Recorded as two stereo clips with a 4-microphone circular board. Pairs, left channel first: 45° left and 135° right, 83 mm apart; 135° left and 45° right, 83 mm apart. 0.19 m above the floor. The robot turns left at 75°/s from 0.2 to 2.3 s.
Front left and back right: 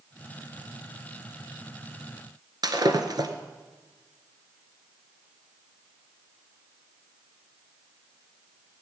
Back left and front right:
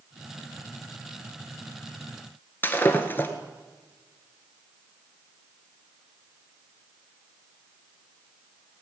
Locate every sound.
2.6 s breaking glass: 160° right, 1.5 m